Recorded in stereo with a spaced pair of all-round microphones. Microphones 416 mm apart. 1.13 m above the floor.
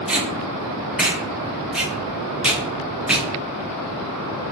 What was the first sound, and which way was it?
Tape being pulled, centre (ahead or behind).